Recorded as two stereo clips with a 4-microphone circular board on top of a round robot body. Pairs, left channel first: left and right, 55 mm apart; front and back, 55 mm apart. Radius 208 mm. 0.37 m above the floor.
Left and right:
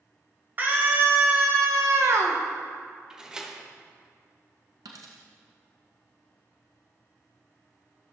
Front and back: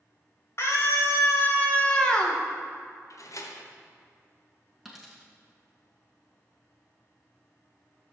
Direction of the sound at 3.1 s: 10° right.